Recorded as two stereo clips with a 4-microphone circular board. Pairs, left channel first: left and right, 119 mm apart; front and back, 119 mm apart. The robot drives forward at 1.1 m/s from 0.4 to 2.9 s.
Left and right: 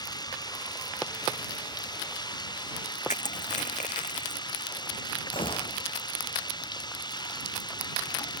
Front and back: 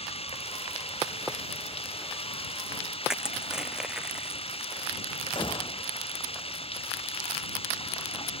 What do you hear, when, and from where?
0.0 s running water: 35° left
3.1 s crushing: 95° left
5.3 s a gunshot: 45° left